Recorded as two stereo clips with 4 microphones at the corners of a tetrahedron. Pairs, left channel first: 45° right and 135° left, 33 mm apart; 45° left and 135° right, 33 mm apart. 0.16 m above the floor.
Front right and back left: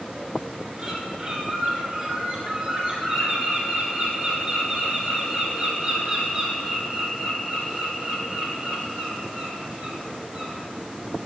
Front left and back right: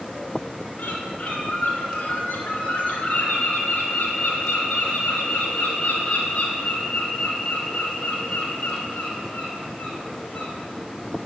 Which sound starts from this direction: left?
A bird, at 0.8 s.